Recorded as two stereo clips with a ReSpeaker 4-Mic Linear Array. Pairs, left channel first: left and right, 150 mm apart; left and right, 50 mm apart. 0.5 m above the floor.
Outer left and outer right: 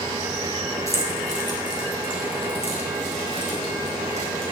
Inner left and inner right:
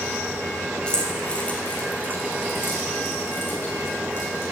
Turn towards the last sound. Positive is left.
turn(degrees=50)  # may be behind; listen again after turning